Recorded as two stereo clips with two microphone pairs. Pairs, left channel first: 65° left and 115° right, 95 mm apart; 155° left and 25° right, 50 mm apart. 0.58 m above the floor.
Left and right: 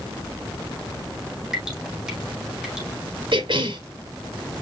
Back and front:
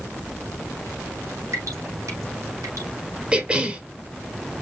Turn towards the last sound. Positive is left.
turn(degrees=-90)